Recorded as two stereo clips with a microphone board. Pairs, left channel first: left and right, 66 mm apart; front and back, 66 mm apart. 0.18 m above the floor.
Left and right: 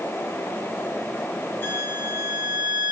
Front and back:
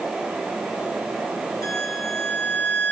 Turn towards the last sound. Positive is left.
turn(degrees=30)